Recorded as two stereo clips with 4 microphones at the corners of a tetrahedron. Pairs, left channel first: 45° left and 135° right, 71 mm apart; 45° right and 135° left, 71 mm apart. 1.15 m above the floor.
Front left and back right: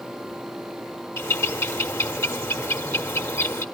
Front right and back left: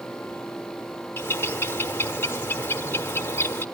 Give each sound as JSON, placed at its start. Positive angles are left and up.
{"t": 1.2, "sound": "a bird", "azimuth_deg": 10, "distance_m": 1.1}